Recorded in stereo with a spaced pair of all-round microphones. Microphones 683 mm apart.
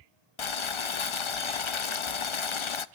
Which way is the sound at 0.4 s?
50° left (ahead or behind).